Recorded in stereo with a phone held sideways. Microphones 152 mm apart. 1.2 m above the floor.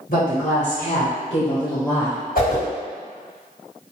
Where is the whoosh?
70° left (ahead or behind), 1.5 m.